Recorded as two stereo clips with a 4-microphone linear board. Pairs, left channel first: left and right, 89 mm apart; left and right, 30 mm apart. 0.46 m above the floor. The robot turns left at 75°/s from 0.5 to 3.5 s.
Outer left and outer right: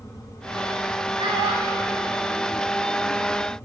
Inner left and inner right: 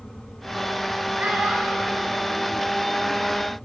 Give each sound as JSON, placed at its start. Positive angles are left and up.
{"t": 1.2, "sound": "a child speaking", "side_deg": -85, "distance_m": 3.0}